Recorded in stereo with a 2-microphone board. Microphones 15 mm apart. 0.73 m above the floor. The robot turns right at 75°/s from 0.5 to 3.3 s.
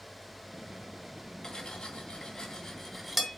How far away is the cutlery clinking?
About 3 m.